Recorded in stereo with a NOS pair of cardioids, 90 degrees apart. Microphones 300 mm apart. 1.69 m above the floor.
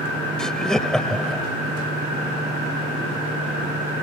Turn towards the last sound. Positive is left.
turn(degrees=0)